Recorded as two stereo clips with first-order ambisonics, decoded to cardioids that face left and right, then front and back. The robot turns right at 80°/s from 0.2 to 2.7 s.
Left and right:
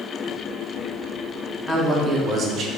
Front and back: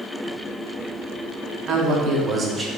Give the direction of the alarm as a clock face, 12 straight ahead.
No alarm in this recording.